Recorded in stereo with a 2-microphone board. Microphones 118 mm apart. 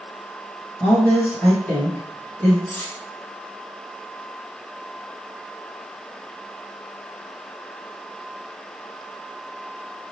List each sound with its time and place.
0.8 s a woman speaking: 15° left (ahead or behind), 2.0 m
2.7 s cutlery clinking: 15° left (ahead or behind), 0.9 m